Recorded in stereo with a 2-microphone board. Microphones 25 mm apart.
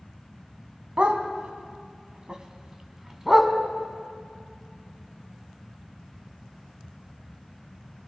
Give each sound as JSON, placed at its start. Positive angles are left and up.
{"t": 1.0, "sound": "a dog barking", "side_deg": -60, "distance_m": 1.8}